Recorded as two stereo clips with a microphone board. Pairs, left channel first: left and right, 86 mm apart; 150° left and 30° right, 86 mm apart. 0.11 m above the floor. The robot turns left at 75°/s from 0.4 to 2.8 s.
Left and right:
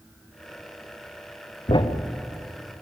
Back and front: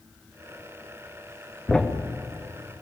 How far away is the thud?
About 1.6 m.